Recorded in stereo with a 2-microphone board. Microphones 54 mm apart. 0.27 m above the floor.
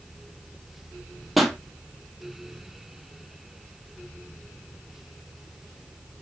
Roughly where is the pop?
Centre.